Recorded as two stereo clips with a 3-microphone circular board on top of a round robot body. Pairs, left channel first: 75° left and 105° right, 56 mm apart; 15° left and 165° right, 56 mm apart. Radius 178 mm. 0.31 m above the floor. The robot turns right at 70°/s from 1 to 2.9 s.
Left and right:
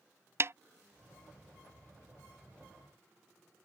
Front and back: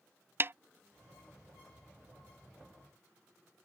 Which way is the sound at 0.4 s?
130° right.